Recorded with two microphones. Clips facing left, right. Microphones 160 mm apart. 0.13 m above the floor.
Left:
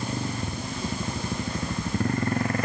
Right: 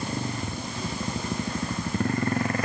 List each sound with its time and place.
Only background noise.